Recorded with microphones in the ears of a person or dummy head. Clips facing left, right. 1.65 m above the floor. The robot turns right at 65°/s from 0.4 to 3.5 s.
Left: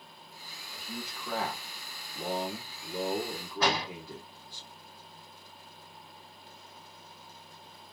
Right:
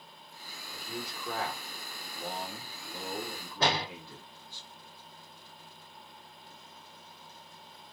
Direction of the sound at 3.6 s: 25° right (ahead or behind).